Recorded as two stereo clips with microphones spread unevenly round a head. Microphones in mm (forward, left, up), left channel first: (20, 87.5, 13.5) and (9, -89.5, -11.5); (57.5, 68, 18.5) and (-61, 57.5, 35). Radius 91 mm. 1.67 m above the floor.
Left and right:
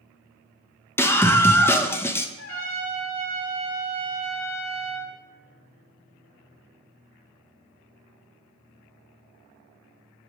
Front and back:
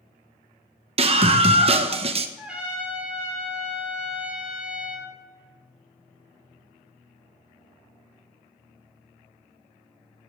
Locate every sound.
1.0 s a scream: 160° left, 1.2 m
2.4 s a trumpet: 105° left, 4.5 m